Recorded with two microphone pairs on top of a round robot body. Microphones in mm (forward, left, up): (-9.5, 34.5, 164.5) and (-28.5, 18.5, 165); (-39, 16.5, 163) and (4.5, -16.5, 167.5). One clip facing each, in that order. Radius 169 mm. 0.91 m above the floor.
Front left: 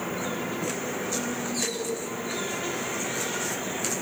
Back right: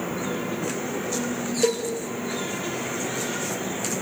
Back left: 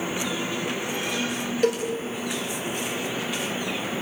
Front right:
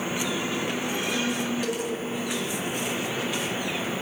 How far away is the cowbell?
About 4 m.